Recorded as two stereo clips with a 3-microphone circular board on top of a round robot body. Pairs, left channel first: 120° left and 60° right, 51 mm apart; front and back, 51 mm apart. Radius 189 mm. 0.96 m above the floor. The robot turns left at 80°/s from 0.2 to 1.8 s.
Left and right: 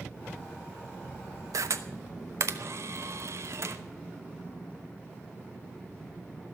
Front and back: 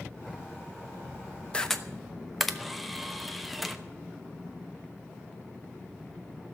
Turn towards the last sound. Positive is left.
turn(degrees=-90)